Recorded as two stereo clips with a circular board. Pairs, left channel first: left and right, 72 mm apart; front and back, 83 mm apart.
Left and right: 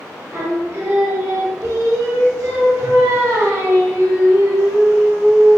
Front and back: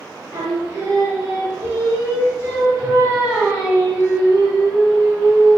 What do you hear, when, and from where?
0.3 s singing: 130° right, 1.1 m